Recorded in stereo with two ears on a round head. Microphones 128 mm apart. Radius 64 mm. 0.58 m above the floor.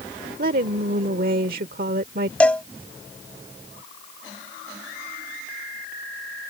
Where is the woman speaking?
65° right (ahead or behind).